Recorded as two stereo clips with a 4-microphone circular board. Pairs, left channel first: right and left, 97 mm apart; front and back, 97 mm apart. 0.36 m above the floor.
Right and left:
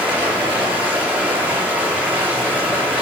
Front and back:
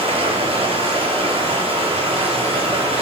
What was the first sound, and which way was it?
Running water, 165° left.